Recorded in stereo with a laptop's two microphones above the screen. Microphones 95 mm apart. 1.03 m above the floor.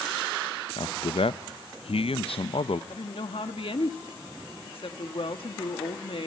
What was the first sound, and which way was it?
A man speaking, 75° left (ahead or behind).